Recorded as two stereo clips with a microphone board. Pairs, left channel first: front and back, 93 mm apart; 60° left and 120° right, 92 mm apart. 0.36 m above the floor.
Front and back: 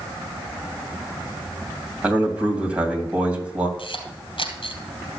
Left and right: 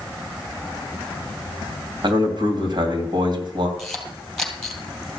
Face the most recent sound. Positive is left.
turn(degrees=-30)